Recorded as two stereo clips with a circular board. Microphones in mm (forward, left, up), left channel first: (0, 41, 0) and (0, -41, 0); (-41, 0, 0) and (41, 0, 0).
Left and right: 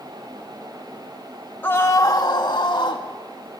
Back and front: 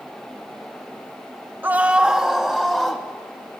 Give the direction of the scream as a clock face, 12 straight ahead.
11 o'clock.